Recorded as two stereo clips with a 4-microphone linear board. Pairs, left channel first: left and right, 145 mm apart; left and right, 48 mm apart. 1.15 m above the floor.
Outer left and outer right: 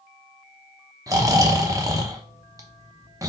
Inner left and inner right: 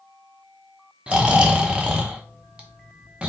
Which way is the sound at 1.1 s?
20° right (ahead or behind).